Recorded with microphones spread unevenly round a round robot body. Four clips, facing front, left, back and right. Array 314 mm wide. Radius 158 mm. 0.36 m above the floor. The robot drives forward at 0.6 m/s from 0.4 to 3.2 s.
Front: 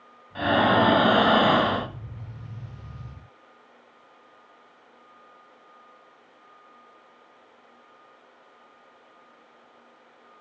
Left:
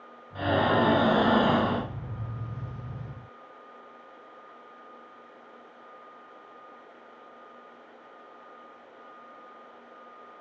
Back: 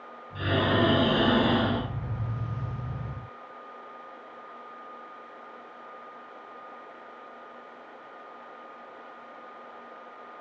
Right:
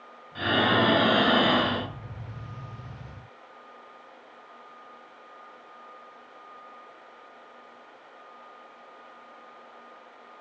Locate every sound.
0.3 s breathing: straight ahead, 2 m